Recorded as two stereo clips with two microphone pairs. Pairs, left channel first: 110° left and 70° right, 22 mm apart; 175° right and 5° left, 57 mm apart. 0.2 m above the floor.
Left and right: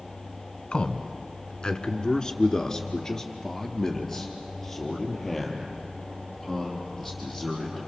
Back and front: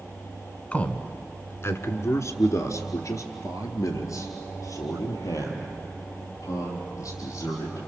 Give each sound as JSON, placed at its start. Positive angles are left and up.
{"t": 0.7, "sound": "a man speaking", "azimuth_deg": 125, "distance_m": 1.5}